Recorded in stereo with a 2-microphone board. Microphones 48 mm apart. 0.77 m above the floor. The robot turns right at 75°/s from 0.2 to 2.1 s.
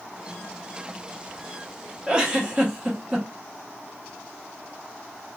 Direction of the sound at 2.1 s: 25° right (ahead or behind).